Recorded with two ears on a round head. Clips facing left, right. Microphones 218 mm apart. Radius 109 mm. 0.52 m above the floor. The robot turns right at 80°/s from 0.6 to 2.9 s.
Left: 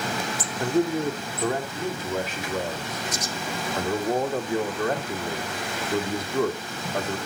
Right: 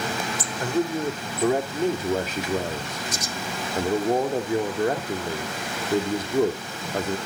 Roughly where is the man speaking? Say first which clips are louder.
Left 2 dB; behind left.